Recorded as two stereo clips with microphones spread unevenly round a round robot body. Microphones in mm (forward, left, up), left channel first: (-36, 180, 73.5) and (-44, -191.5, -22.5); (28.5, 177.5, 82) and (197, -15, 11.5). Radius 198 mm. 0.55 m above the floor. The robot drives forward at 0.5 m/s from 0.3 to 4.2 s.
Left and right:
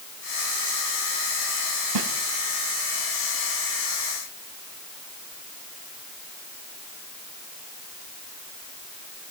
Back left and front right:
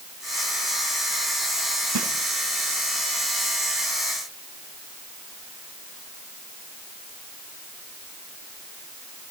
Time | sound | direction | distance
1.9 | a snare drum | 60° right | 4 m